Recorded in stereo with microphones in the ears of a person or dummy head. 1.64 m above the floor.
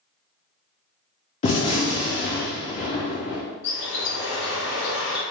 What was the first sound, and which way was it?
A gunshot, 35° left (ahead or behind).